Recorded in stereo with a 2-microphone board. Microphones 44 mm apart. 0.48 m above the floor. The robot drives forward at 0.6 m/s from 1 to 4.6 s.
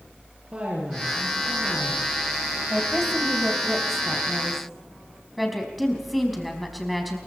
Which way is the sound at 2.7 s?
Centre (ahead or behind).